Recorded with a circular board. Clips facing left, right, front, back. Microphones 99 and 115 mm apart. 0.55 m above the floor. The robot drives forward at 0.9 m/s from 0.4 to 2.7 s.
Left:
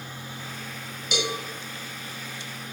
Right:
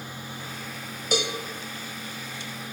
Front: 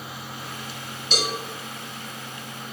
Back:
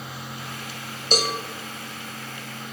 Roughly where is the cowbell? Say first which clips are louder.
Right 2 dB, back 4 dB; behind right.